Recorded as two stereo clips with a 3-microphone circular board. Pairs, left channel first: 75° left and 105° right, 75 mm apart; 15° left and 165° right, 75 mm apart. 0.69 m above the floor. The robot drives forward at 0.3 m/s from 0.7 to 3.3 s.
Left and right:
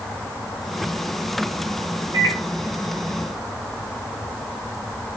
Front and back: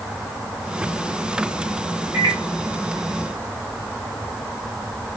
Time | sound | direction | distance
2.1 | a microwave | 115° right | 1.3 m